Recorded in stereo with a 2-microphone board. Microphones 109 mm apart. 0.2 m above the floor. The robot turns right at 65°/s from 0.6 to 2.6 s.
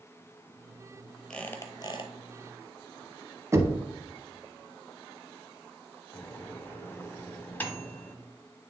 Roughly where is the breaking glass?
I don't hear breaking glass.